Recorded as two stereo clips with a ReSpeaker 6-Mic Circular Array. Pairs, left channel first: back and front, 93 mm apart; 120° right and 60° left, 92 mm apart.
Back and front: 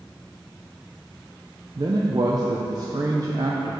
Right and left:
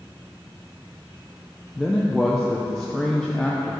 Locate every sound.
1.8 s a man speaking: 35° right, 0.7 m